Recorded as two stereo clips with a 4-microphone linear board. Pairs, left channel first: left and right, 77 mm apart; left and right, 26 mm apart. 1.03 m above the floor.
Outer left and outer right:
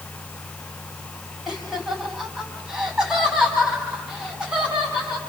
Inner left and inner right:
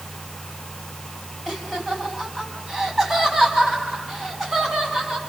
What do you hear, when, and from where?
1.5 s laughter: 5° right (ahead or behind), 5 m; by 5.2 s 10° right (ahead or behind), 8 m